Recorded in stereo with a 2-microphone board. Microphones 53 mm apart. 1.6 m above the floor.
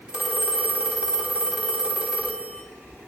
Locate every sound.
0.1 s a phone ringing: 20° right (ahead or behind), 3.5 m